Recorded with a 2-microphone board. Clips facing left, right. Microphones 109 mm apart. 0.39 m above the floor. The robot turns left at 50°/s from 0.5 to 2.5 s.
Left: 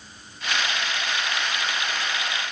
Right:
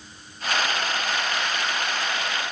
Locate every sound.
Only background noise.